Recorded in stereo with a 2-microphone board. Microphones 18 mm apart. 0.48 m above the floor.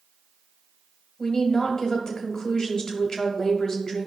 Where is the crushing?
No crushing in this recording.